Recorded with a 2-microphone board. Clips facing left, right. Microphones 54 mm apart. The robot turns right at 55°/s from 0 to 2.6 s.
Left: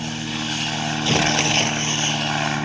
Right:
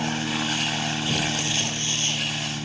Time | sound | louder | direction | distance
0.0 | an aircraft | right 1 dB | 25° right (ahead or behind) | ?
1.0 | tearing paper | left 7 dB | 90° left | ?